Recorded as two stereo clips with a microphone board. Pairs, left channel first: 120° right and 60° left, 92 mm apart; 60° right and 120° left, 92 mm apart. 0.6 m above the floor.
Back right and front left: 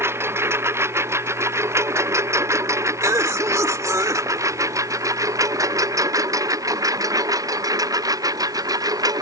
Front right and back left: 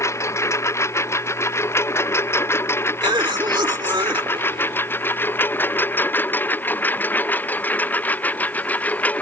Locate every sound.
0.0 s a lawn mower: 5° right; by 9.2 s 15° left
3.0 s a cough: 105° left